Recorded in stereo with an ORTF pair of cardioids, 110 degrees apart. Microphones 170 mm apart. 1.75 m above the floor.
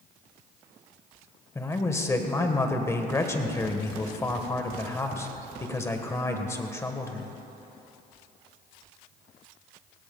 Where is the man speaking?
15° left, 1.4 m.